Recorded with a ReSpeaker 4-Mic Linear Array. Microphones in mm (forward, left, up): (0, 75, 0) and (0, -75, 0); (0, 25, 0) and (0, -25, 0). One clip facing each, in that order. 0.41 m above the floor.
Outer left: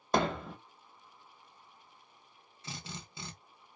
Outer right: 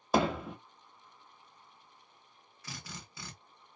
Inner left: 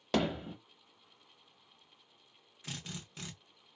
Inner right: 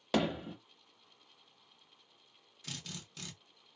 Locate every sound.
0.1 s hammering: 5° right (ahead or behind), 0.7 m
2.6 s a drill: 25° left (ahead or behind), 0.8 m